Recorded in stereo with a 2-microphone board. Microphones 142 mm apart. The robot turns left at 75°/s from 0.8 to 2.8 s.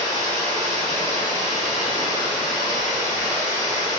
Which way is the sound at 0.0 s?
130° left.